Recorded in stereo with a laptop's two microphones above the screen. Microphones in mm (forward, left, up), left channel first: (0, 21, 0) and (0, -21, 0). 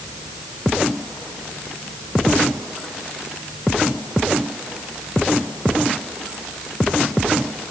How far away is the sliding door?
No sliding door in this recording.